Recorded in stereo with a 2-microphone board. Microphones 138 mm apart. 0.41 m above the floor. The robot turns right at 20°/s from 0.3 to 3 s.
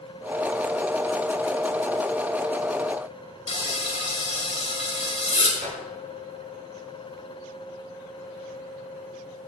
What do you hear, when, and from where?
3.5 s frying: 50° left (ahead or behind), 2 m
5.6 s a whoosh: 80° right, 5 m